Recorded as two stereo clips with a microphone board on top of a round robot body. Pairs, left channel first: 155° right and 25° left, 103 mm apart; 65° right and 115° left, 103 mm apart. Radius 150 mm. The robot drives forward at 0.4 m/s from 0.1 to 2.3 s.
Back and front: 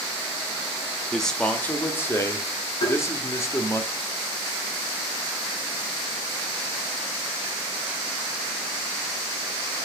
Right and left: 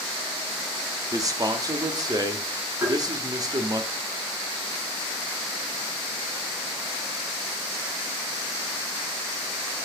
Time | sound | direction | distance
1.1 | a man speaking | 115° left | 1.0 m
2.8 | tapping | straight behind | 4.5 m